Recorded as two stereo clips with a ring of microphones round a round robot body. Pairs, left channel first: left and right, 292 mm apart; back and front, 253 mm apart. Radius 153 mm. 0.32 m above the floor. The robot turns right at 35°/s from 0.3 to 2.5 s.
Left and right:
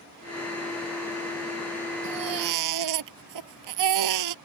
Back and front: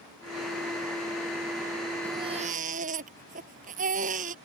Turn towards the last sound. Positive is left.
turn(degrees=-65)